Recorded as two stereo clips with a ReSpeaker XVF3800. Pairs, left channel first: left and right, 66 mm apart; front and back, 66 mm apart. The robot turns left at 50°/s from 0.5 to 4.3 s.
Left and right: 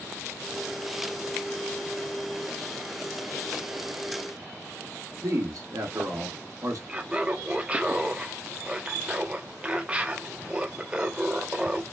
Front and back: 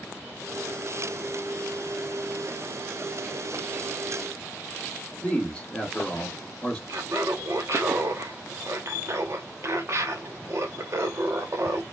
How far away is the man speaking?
About 1.7 m.